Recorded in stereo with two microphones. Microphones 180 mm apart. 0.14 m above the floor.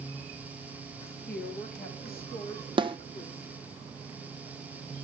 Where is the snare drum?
25° right (ahead or behind), 0.8 m.